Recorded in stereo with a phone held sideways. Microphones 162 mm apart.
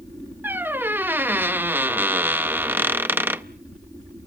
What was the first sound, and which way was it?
A squeak, 10° right (ahead or behind).